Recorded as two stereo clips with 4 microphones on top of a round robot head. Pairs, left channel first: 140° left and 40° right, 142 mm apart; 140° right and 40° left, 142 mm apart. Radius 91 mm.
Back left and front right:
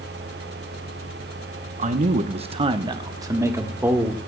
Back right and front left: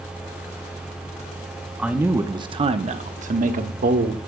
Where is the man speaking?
40° right, 1.0 m; by 4.2 s 35° left, 1.8 m.